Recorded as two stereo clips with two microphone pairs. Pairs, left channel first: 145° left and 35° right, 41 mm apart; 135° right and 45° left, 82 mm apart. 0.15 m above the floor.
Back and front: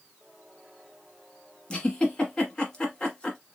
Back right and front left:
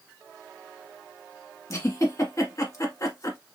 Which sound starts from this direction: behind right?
A giggle, at 1.7 s.